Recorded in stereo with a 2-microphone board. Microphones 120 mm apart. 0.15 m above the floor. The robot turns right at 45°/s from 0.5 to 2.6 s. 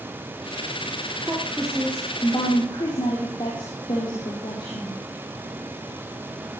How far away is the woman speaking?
About 6 m.